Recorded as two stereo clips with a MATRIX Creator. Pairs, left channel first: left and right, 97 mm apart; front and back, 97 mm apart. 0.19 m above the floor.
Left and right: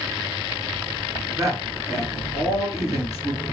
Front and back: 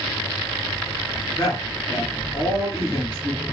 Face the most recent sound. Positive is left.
turn(degrees=-40)